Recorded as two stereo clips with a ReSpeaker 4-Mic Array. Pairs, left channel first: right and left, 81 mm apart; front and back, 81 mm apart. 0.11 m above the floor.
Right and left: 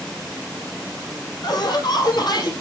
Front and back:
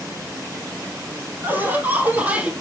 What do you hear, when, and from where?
1.4 s laughter: 115° right, 4.5 m; by 2.5 s 105° right, 3.5 m